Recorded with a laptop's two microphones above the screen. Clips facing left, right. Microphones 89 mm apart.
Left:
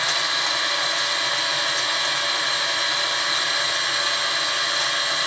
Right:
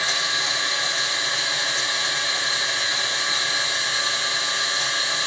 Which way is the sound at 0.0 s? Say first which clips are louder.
Left 1 dB; 55° left (ahead or behind).